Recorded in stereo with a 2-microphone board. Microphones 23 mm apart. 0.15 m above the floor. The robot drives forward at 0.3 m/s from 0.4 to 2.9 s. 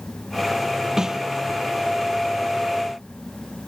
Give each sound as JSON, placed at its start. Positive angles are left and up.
{"t": 1.0, "sound": "a snare drum", "side_deg": -25, "distance_m": 0.7}